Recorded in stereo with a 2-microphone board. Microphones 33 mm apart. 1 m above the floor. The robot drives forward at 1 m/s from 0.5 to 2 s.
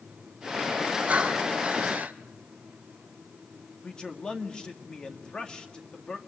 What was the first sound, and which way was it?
Breathing, 35° right (ahead or behind).